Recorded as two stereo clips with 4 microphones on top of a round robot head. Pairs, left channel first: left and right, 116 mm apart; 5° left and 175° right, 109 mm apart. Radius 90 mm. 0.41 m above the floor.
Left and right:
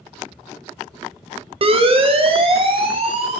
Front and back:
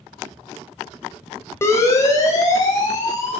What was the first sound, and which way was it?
A siren, 60° right.